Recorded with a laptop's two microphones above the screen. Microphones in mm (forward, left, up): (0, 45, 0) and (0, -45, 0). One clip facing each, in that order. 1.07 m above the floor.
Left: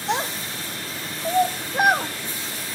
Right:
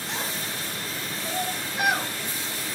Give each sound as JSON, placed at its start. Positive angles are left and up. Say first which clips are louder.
{"t": 0.1, "sound": "a child speaking", "louder": "left 8 dB", "side_deg": 85, "distance_m": 2.0}